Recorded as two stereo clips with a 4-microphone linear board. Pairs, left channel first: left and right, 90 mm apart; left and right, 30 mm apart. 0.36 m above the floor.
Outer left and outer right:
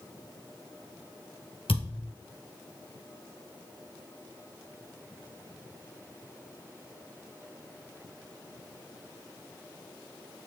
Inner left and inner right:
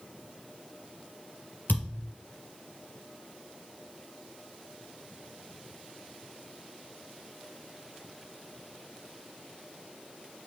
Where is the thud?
85° left, 2.5 m.